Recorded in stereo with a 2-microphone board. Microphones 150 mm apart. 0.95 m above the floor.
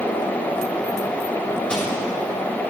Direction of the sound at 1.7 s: 10° left (ahead or behind).